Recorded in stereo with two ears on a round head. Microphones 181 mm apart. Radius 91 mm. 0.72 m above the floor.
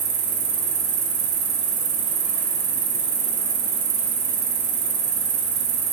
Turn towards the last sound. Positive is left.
turn(degrees=-70)  # may be behind; listen again after turning